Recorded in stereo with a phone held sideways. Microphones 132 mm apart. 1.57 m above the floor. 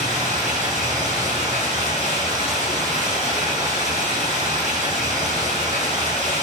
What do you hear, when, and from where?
0.0 s running water: 70° right (ahead or behind), 4.5 m